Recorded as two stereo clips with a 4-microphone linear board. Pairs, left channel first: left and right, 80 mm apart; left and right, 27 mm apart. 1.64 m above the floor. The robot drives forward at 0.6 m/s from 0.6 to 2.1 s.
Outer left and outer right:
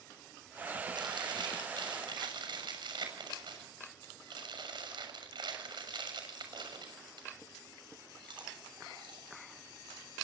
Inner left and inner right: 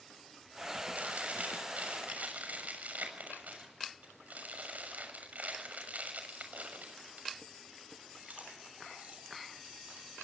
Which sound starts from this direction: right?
Chewing, at 0.9 s.